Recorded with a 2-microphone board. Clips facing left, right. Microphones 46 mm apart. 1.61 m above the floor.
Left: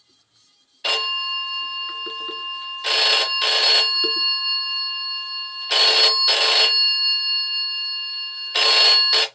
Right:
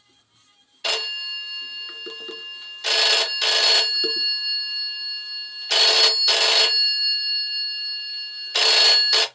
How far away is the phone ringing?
About 0.6 m.